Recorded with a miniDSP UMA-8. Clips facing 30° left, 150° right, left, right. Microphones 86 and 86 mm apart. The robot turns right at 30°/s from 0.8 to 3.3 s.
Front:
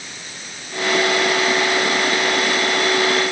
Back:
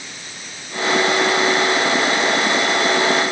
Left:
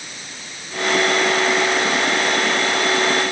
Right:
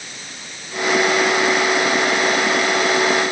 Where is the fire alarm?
No fire alarm in this recording.